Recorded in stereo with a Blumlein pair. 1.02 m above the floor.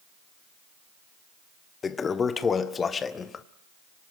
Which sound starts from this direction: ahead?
A toilet flushing, at 1.8 s.